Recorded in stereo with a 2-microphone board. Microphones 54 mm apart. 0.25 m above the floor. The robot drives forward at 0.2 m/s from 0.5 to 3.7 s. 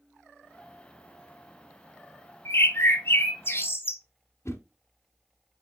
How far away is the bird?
About 0.9 m.